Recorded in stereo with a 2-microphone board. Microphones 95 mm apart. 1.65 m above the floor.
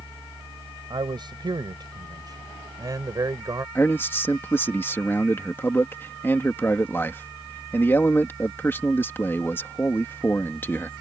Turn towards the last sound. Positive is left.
turn(degrees=25)  # may be behind; listen again after turning